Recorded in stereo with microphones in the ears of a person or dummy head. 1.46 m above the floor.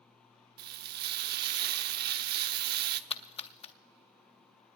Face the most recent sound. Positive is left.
turn(degrees=30)  # may be behind; listen again after turning